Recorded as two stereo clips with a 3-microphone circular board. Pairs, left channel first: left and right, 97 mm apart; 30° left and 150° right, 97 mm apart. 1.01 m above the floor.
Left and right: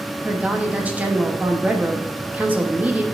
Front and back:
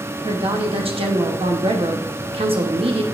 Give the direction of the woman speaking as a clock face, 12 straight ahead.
6 o'clock.